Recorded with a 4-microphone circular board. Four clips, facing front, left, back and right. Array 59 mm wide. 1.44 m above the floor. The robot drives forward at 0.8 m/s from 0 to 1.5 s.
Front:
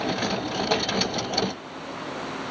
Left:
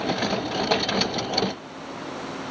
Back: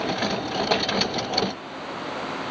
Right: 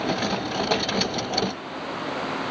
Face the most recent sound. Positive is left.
No sound to turn to.